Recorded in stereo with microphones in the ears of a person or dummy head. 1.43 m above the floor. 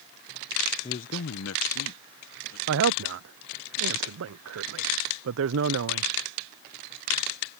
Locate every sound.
0.8 s a man speaking: 25° left (ahead or behind); by 2.6 s 65° left (ahead or behind)
2.7 s a woman speaking: 70° right (ahead or behind)